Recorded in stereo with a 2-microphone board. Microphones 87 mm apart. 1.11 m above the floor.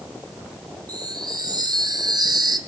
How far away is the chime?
About 0.9 m.